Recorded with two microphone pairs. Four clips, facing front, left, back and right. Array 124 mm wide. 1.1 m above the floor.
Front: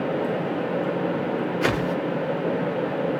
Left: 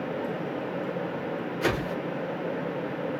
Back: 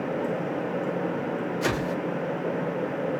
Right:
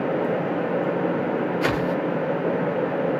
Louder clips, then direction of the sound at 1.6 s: Right 5 dB, front 3 dB; 35° right.